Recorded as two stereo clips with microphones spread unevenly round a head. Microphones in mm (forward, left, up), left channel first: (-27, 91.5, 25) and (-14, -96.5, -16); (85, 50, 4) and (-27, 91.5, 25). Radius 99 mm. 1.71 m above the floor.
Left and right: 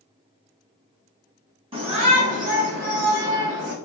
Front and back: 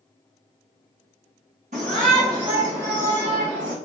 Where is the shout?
150° right, 1.9 m; by 3.8 s 100° right, 1.7 m.